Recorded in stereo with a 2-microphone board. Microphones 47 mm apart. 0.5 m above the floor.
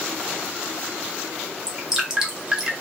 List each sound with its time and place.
1.7 s dripping: 10° right (ahead or behind), 0.7 m